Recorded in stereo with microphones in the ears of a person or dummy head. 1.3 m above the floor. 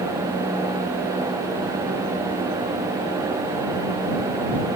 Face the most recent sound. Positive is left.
No sound to turn to.